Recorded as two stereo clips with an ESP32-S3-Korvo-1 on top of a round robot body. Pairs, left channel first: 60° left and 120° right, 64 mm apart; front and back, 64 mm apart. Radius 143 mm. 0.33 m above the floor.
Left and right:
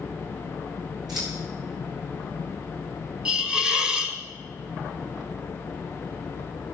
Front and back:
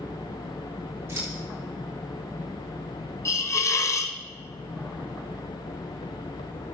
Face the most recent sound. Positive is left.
turn(degrees=-45)